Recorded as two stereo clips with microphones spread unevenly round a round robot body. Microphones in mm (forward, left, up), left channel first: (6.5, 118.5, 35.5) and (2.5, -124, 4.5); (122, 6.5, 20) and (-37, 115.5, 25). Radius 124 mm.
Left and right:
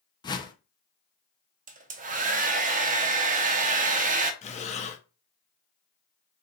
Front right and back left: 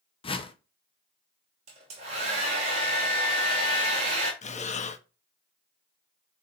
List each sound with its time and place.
0.2 s a whoosh: 15° left, 0.6 m
1.7 s a hair dryer: 150° right, 0.5 m
4.4 s breathing: 25° left, 0.5 m